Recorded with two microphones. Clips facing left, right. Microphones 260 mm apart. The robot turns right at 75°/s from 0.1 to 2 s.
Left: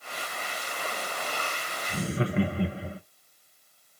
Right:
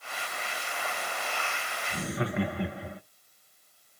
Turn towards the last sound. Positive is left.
turn(degrees=35)  # may be behind; listen again after turning